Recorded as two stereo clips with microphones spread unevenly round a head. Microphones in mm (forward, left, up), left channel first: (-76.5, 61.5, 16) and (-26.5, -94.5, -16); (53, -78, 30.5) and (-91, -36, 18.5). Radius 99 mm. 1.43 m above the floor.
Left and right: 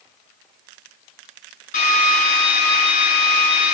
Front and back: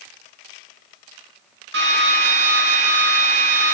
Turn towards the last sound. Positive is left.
turn(degrees=145)